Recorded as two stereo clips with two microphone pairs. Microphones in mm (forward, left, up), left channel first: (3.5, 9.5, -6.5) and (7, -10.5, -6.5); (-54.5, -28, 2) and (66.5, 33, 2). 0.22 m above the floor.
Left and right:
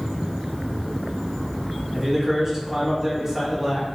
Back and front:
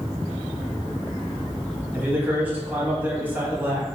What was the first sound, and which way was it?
A man speaking, 30° right.